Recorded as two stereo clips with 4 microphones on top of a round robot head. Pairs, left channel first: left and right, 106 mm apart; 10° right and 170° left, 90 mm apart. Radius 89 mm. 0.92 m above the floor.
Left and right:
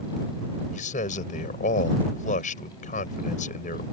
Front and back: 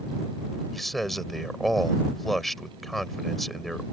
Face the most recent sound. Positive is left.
turn(degrees=75)